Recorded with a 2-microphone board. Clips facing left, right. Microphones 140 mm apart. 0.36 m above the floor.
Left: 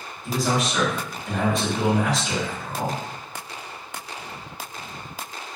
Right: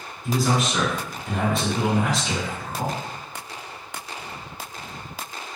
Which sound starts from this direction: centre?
A man speaking, at 0.2 s.